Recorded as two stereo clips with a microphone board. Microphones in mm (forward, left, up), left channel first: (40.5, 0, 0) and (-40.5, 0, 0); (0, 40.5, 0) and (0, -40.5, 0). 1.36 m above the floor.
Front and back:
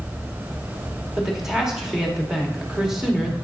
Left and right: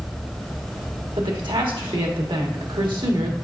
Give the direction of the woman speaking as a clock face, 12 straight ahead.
3 o'clock.